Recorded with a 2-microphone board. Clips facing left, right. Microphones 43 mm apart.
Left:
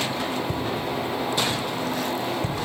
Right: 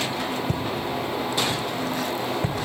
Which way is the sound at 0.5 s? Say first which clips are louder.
Even; 70° right (ahead or behind).